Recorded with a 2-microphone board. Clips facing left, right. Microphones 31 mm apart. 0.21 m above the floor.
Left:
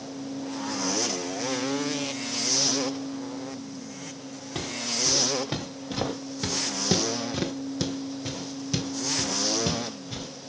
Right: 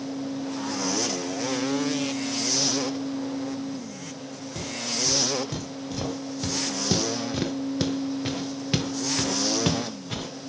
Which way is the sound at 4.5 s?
45° left (ahead or behind).